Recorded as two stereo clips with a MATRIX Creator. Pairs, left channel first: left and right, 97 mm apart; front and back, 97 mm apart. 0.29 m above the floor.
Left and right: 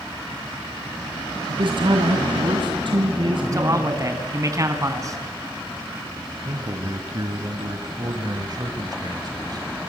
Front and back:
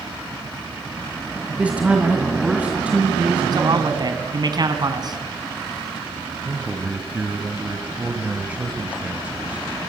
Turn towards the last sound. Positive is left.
turn(degrees=-110)